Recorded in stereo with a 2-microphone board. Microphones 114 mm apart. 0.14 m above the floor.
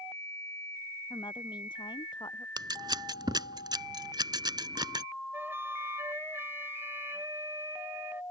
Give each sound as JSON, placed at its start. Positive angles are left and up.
{"t": 1.1, "sound": "a woman speaking", "side_deg": 40}
{"t": 2.6, "sound": "scissors", "side_deg": -35}
{"t": 5.3, "sound": "a flute", "side_deg": -20}